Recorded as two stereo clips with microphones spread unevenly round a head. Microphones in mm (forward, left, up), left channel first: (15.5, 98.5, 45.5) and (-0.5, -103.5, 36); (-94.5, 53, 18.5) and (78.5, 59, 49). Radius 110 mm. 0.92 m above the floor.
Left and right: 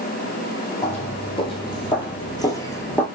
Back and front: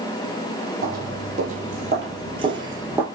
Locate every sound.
0.8 s footsteps: 25° left, 2 m